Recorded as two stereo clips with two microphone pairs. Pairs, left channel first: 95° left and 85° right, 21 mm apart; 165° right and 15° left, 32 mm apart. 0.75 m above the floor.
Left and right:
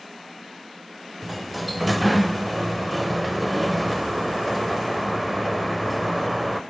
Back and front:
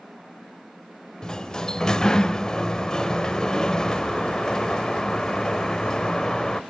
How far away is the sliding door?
About 0.5 m.